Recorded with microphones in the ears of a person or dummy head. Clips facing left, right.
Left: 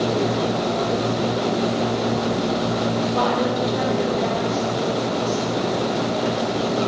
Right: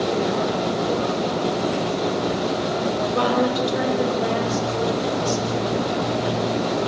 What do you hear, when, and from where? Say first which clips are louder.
3.1 s a woman speaking: right 1 dB; 35° right (ahead or behind), 9 m